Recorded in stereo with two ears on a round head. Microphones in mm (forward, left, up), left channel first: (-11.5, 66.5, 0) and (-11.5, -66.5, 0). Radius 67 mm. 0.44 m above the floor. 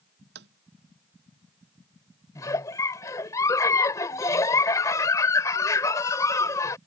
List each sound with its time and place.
0.3 s tapping: 85° right
2.4 s a giggle: 25° left (ahead or behind)